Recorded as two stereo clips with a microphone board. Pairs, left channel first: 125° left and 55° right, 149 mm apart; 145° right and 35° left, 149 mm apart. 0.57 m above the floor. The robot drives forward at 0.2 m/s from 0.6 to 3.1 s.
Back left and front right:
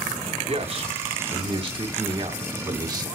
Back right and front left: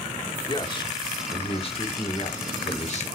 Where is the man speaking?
95° right, 1.4 m; by 3.1 s 115° right, 1.5 m.